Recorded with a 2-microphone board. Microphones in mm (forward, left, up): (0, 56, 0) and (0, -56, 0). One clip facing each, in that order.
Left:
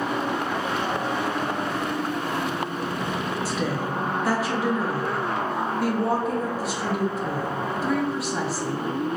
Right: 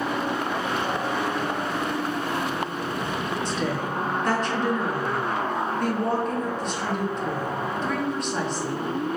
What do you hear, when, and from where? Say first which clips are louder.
3.5 s a woman speaking: even; 5° left (ahead or behind), 0.6 m